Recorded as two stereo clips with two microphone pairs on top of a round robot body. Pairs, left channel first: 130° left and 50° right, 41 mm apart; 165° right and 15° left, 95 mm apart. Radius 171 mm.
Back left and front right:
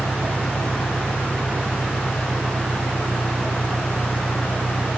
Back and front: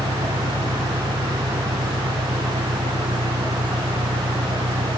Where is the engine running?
30° right.